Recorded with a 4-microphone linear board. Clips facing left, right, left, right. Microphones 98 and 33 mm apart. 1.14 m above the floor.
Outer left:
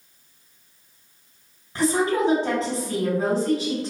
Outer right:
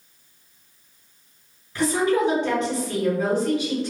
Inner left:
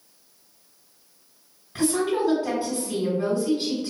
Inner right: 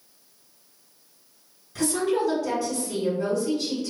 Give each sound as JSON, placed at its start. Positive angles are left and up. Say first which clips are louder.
{"t": 1.8, "sound": "a woman speaking", "louder": "outer right 1 dB, inner left 1 dB", "side_deg": 40, "distance_m": 1.9}